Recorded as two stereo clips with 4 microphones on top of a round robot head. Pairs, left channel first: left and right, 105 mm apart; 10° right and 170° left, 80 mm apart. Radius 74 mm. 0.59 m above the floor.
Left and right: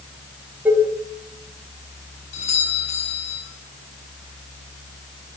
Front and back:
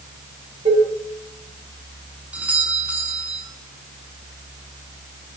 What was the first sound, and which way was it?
Dishes clattering, 165° right.